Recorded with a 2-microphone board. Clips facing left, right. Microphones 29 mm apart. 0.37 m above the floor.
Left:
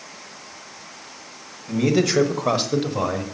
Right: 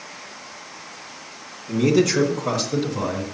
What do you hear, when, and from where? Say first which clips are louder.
1.7 s a man speaking: right 1 dB; 15° left (ahead or behind), 1.8 m; by 3.2 s 45° left (ahead or behind), 1.5 m